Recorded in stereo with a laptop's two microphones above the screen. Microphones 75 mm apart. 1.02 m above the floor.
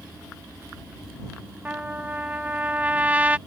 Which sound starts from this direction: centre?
A trumpet, at 1.6 s.